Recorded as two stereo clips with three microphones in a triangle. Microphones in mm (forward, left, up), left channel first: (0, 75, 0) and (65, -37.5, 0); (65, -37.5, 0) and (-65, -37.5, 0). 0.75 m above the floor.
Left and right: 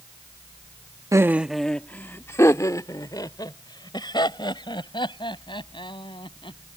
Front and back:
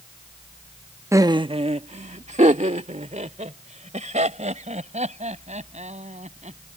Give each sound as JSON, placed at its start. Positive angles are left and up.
{"t": 1.1, "sound": "laughter", "azimuth_deg": -115}